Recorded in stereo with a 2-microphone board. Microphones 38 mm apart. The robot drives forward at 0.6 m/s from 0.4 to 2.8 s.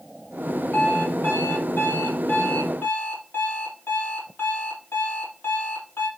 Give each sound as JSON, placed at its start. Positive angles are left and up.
{"t": 0.7, "sound": "an alarm clock", "side_deg": 75, "distance_m": 3.5}